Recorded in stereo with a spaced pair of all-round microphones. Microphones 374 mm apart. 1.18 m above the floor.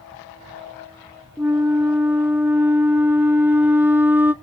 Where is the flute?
5° right (ahead or behind), 0.7 m.